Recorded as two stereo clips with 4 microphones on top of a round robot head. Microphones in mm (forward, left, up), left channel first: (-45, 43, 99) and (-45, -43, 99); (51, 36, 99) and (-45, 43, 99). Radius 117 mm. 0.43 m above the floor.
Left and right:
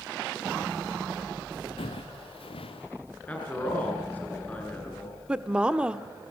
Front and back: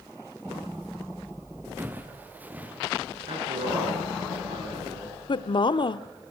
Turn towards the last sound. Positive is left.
turn(degrees=-10)